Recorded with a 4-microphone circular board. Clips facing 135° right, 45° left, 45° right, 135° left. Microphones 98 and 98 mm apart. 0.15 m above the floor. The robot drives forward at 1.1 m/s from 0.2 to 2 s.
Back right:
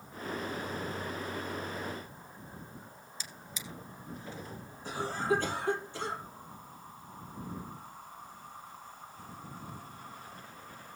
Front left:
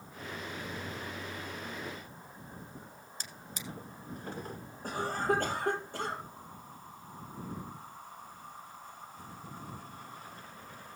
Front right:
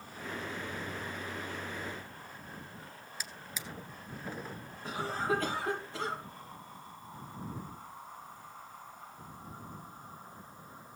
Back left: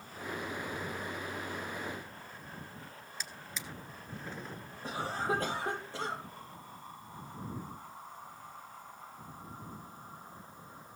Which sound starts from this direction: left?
A cough, at 4.8 s.